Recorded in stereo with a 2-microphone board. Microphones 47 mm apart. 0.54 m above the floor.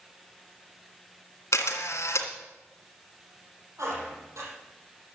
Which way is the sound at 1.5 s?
80° left.